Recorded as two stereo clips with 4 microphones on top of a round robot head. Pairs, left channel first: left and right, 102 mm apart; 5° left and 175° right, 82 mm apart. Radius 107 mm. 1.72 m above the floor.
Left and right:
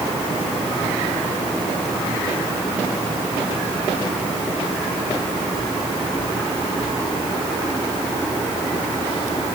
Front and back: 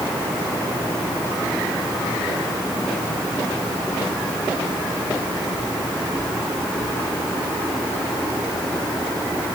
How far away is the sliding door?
I don't hear a sliding door.